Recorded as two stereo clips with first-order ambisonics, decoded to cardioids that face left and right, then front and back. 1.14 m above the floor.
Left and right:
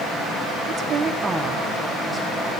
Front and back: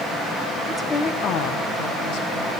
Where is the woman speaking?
105° right, 0.6 m; by 2.5 s straight ahead, 1.6 m.